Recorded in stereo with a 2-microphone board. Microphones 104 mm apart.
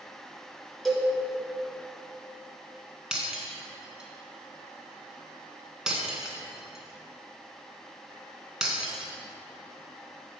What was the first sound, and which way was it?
A cowbell, centre (ahead or behind).